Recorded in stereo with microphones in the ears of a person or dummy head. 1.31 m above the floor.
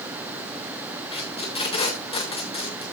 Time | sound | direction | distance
1.1 | tape being pulled | 30° left (ahead or behind) | 3 m